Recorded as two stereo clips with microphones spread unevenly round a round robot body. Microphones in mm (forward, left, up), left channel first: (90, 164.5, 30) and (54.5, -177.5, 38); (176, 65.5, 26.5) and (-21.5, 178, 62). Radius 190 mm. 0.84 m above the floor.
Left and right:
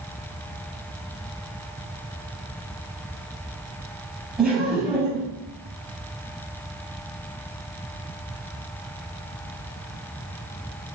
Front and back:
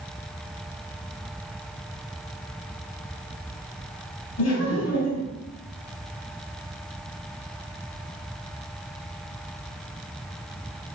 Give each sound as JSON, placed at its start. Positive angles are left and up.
{"t": 4.4, "sound": "laughter", "azimuth_deg": -10, "distance_m": 5.5}